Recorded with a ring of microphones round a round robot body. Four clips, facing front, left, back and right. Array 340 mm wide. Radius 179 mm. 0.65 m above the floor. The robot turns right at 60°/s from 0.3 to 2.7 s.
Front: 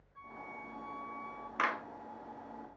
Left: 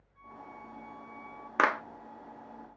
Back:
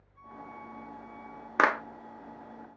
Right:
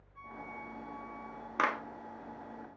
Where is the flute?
40° right, 3.5 m; by 1.5 s 35° left, 3.5 m.